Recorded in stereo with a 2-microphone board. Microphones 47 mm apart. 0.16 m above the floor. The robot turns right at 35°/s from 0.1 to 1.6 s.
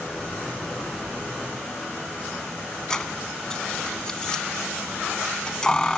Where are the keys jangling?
15° left (ahead or behind).